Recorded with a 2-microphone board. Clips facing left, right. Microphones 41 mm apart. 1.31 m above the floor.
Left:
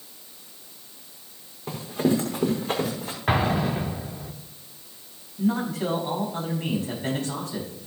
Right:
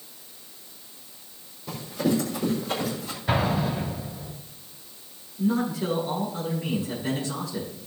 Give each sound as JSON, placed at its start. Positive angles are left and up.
{"t": 1.7, "sound": "running footsteps", "side_deg": 55, "distance_m": 5.0}
{"t": 3.3, "sound": "an explosion", "side_deg": 60, "distance_m": 2.5}
{"t": 5.4, "sound": "a man speaking", "side_deg": 70, "distance_m": 6.5}